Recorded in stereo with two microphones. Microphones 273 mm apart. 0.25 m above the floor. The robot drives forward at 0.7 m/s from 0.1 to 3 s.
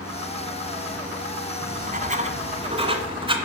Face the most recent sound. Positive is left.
turn(degrees=-20)  # may be behind; listen again after turning